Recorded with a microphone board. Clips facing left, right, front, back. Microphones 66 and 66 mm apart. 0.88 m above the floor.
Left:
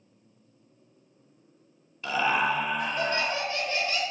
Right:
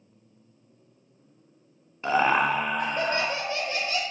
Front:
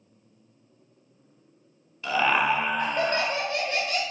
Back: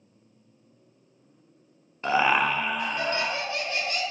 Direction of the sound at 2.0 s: 135° right.